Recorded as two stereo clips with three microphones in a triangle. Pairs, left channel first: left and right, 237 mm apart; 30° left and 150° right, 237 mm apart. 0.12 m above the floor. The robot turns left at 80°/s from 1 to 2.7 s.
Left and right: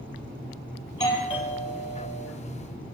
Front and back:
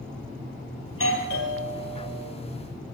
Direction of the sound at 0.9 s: 20° left.